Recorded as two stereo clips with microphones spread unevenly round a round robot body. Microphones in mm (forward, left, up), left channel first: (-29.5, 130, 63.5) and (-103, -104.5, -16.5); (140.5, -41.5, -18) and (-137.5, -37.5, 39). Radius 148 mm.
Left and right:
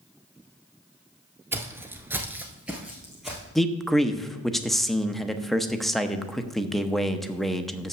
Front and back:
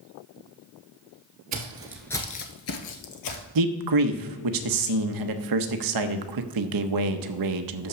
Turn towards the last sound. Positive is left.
turn(degrees=170)